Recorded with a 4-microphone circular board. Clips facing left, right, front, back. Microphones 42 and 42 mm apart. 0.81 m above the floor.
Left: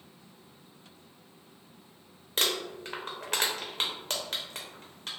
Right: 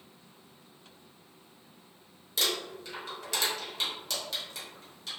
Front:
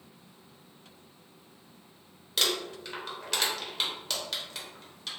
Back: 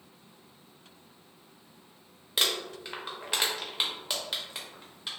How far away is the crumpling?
About 0.6 m.